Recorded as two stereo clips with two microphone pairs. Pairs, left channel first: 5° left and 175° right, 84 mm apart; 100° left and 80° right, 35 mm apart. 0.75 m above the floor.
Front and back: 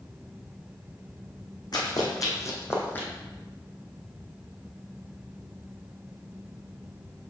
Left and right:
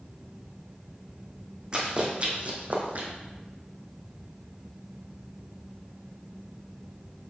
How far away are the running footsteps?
About 2 m.